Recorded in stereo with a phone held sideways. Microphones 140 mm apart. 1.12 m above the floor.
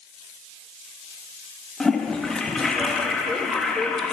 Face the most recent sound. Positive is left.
turn(degrees=5)  # may be behind; listen again after turning